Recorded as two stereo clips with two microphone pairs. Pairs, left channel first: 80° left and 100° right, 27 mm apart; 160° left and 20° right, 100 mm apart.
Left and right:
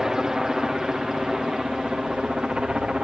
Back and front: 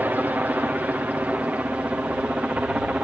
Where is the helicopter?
65° right; by 3.0 s 85° right.